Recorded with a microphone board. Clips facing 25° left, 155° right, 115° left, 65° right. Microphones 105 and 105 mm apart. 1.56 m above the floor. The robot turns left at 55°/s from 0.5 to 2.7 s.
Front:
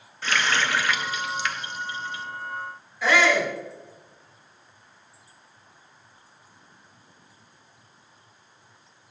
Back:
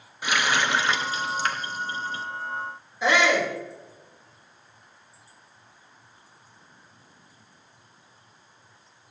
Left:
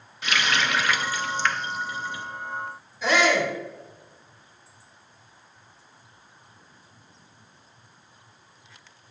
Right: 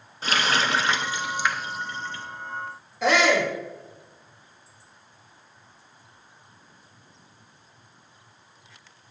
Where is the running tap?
90° right, 0.9 m; by 2.3 s 175° left, 0.9 m.